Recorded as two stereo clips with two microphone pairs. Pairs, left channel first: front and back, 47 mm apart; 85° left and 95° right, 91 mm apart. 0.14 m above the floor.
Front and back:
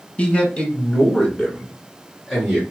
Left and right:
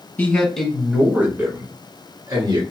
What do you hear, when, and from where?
0.2 s a man speaking: 30° left, 1.6 m; by 2.6 s 90° right, 2.5 m